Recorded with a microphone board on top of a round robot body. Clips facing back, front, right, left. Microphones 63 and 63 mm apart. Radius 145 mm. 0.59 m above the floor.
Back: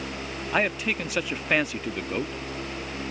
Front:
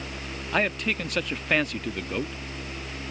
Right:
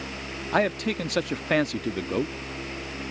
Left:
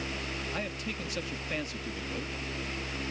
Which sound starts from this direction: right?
A man speaking, at 0.5 s.